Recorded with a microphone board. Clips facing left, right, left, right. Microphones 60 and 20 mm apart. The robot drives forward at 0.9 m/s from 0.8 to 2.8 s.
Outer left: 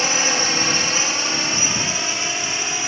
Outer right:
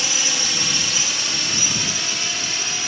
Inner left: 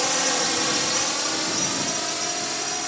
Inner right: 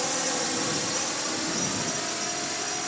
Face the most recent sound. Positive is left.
turn(degrees=25)  # may be behind; listen again after turning